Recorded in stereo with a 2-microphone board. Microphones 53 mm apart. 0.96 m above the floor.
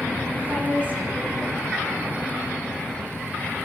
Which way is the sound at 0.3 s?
35° right (ahead or behind).